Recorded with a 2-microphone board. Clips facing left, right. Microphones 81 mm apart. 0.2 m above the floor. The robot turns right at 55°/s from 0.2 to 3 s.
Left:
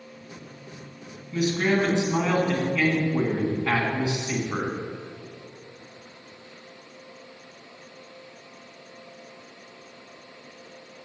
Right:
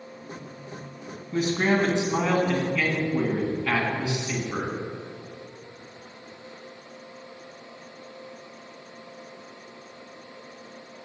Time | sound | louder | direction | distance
1.3 | a man speaking | even | 65° right | 2 m